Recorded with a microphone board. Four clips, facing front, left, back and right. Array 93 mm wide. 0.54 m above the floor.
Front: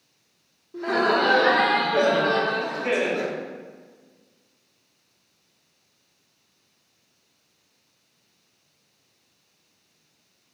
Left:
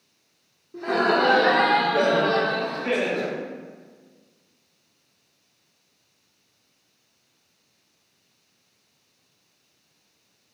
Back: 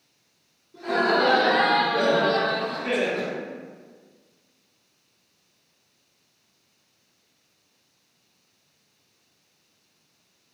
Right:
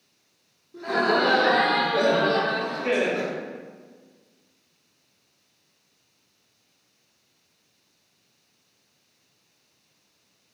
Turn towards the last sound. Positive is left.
turn(degrees=-55)